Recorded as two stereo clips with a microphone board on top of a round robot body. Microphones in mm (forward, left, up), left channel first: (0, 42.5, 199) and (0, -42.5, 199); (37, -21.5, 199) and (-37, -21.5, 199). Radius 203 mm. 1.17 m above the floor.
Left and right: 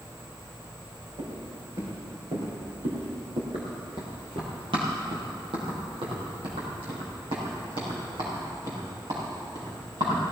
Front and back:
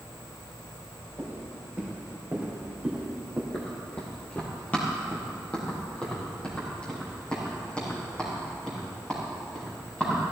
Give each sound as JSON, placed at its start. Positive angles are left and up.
{"t": 1.2, "sound": "footsteps", "azimuth_deg": -115, "distance_m": 4.0}
{"t": 3.5, "sound": "running footsteps", "azimuth_deg": -55, "distance_m": 1.4}